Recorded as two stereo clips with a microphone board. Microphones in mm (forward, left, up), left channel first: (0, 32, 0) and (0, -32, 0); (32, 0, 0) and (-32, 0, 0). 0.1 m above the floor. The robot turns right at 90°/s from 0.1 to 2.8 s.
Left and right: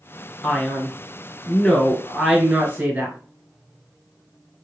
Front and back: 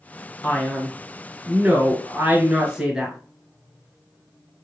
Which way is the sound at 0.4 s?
30° left.